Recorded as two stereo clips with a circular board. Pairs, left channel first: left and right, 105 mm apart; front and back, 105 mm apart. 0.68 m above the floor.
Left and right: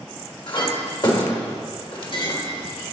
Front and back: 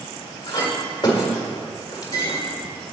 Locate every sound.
0.5 s a clink: 50° left, 1.5 m